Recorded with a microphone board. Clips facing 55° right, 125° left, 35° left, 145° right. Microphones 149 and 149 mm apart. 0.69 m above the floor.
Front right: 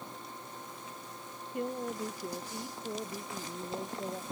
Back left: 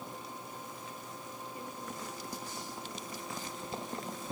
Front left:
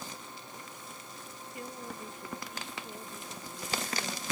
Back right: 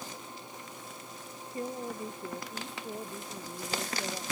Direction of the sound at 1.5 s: 85° right.